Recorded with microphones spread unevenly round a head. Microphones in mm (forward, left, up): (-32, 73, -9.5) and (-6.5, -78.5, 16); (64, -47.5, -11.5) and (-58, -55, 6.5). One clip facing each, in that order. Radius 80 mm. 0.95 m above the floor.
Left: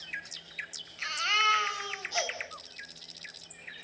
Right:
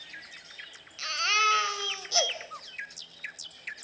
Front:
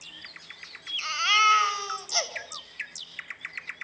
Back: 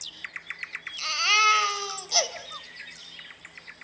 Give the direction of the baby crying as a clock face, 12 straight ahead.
4 o'clock.